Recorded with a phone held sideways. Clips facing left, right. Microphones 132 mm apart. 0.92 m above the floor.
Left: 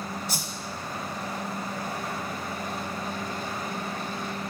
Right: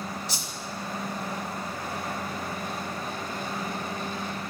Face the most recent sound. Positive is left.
turn(degrees=55)  # may be behind; listen again after turning